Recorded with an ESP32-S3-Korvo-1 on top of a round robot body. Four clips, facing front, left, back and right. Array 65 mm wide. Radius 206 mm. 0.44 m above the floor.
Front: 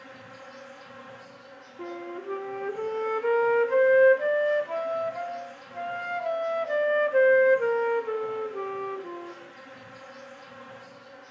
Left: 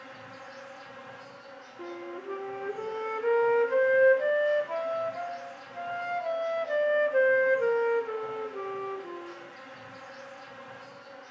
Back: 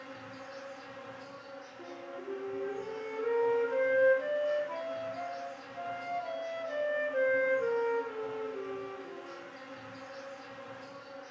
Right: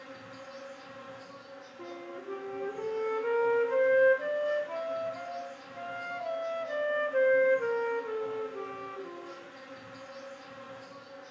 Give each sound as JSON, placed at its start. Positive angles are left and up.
{"t": 0.0, "sound": "an insect", "azimuth_deg": 80, "distance_m": 2.5}
{"t": 1.8, "sound": "a flute", "azimuth_deg": 25, "distance_m": 0.5}